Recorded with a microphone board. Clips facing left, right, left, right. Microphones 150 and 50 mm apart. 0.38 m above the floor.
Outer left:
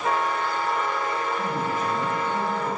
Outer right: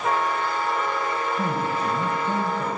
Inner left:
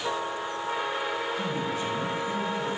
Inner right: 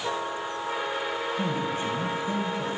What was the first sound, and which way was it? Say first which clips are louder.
A man speaking: outer right 1 dB, inner right 1 dB; 35° right (ahead or behind).